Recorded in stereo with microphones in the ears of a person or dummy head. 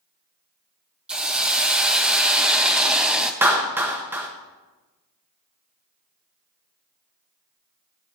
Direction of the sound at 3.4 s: 15° right (ahead or behind).